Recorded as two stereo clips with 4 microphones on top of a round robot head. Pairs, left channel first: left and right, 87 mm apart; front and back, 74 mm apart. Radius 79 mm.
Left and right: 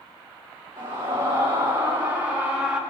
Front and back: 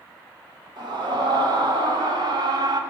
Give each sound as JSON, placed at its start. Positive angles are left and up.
{"t": 0.8, "sound": "a scream", "azimuth_deg": -155, "distance_m": 3.0}